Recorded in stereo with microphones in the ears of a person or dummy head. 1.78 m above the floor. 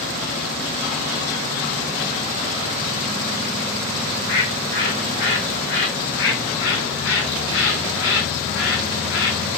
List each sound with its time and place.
4.1 s a bird: 50° left (ahead or behind), 1.6 m
6.0 s a bird: 70° left (ahead or behind), 2 m